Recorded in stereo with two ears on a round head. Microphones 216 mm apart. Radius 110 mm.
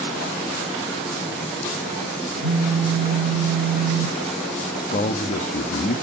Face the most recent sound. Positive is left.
turn(degrees=30)  # may be behind; listen again after turning